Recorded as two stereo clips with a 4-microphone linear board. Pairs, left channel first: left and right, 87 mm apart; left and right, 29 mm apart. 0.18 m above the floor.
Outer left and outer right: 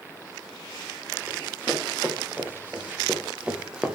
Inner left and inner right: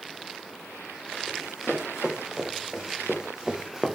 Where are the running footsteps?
20° right (ahead or behind), 4 m; by 4.0 s 10° right (ahead or behind), 1.6 m.